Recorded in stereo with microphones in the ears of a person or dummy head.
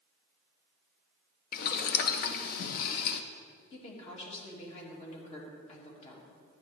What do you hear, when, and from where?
1.5 s boiling: 60° left (ahead or behind), 0.8 m
3.7 s a woman speaking: 45° left (ahead or behind), 2.5 m